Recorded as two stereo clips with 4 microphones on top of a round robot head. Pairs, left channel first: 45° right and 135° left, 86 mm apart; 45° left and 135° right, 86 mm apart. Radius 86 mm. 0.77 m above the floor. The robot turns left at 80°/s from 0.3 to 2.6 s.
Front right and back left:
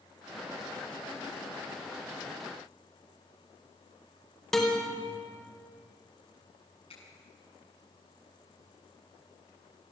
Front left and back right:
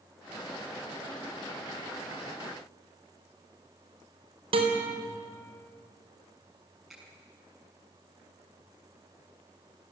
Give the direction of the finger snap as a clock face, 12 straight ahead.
2 o'clock.